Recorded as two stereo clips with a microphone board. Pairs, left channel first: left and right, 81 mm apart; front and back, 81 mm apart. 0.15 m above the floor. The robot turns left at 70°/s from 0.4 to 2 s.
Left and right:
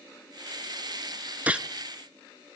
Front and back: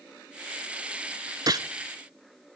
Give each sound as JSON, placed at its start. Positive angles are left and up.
{"t": 1.5, "sound": "a gunshot", "azimuth_deg": -160, "distance_m": 0.5}